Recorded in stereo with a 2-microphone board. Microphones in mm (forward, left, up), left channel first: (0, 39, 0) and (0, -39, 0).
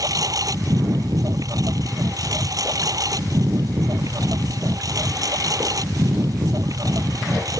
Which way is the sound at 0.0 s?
50° right (ahead or behind).